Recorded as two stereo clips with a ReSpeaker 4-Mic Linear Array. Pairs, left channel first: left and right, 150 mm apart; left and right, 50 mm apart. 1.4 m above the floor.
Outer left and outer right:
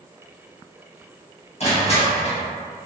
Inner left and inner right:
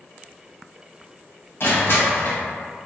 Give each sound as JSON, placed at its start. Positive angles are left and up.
{"t": 1.6, "sound": "crushing", "side_deg": 45, "distance_m": 0.9}